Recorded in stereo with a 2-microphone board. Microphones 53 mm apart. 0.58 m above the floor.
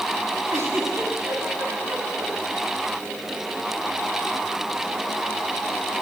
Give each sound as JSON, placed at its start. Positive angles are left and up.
{"t": 0.5, "sound": "a giggle", "side_deg": -80, "distance_m": 5.5}